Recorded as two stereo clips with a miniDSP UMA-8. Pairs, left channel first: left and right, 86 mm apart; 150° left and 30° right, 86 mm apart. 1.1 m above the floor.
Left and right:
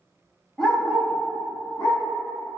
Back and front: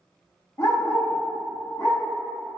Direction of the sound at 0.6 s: 175° left.